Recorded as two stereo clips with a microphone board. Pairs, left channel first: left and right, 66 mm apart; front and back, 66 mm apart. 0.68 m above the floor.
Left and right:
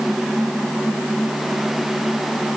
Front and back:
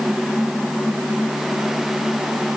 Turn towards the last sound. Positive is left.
No sound to turn to.